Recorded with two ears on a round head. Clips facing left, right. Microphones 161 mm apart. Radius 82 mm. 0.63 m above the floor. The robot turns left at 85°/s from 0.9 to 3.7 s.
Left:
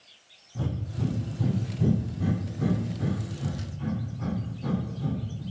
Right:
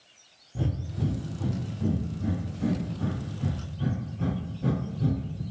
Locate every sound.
0.6 s breathing: 25° right (ahead or behind), 0.7 m; by 5.4 s 35° right (ahead or behind), 0.7 m